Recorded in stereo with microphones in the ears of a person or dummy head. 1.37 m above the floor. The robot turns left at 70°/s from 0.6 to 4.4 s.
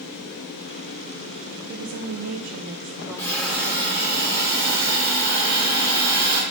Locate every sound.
1.7 s a woman speaking: 70° right, 0.7 m; by 4.2 s 120° left, 0.7 m
3.2 s a hiss: 20° left, 2.5 m; by 6.4 s 65° right, 2.5 m